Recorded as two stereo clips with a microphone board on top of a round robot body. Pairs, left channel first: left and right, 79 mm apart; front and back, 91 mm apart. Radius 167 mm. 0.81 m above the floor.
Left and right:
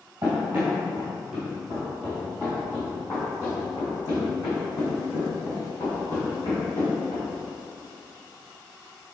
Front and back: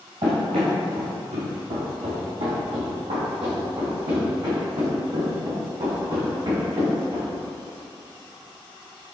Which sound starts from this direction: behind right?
Running footsteps, at 0.2 s.